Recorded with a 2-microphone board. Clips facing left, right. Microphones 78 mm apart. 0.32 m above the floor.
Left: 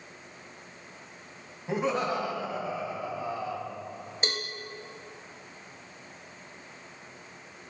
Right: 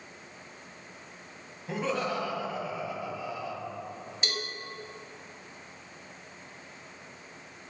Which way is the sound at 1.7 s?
15° left (ahead or behind).